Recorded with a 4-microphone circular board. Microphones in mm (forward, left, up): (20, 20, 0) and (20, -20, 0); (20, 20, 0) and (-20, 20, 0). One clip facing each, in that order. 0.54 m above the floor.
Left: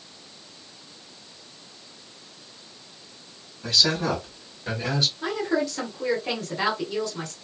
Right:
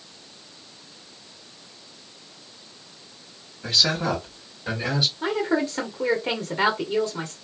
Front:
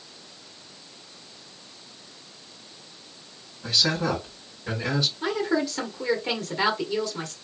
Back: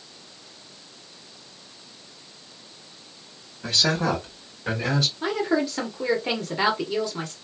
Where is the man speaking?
165° right, 2 m; by 5.1 s 175° right, 3 m.